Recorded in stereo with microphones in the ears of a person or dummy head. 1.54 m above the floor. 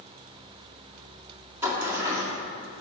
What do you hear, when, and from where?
1.6 s a sliding door: 5° right (ahead or behind), 1.8 m